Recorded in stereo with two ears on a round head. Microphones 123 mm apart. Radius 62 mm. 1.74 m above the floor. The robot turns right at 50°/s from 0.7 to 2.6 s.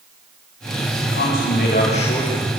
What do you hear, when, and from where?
1.1 s a man speaking: 90° left, 7.5 m; by 2.5 s 160° left, 7.5 m